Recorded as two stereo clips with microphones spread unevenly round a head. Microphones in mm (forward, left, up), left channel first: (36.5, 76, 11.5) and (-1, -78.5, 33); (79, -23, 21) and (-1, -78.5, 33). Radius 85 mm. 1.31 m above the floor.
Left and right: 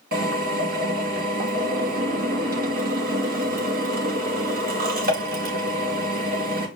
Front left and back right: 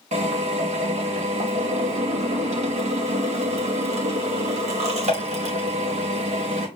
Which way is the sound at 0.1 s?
145° right.